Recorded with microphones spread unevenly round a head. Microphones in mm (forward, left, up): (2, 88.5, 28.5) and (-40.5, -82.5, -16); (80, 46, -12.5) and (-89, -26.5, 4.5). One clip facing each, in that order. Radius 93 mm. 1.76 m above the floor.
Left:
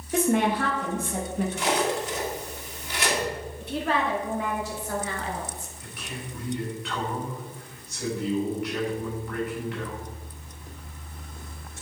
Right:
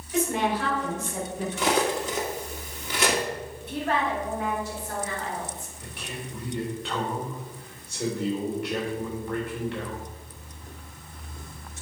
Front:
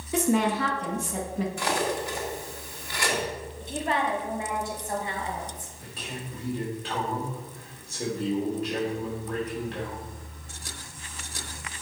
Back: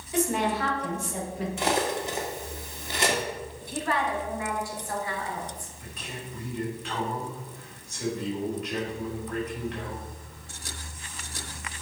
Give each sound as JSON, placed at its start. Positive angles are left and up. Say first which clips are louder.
{"t": 0.1, "sound": "a woman speaking", "louder": "left 3 dB, front 3 dB", "azimuth_deg": 40, "distance_m": 2.0}
{"t": 1.6, "sound": "cutlery clinking", "louder": "right 3 dB, back 4 dB", "azimuth_deg": -100, "distance_m": 1.6}
{"t": 3.6, "sound": "a woman speaking", "louder": "left 1 dB, front 1 dB", "azimuth_deg": 95, "distance_m": 2.0}
{"t": 5.8, "sound": "a man speaking", "louder": "right 1 dB, front 4 dB", "azimuth_deg": -40, "distance_m": 3.5}